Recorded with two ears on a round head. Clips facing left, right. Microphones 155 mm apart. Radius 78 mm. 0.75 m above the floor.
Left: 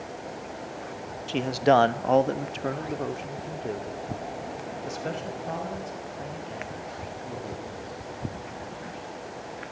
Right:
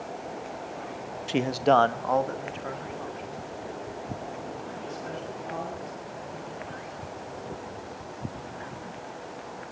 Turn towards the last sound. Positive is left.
turn(degrees=55)  # may be behind; listen again after turning